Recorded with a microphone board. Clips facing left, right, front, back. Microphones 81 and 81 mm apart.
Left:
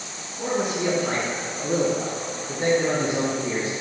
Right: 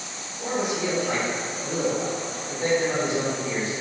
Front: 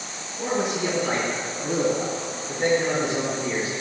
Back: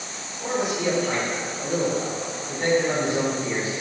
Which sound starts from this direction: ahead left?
A man speaking, at 0.4 s.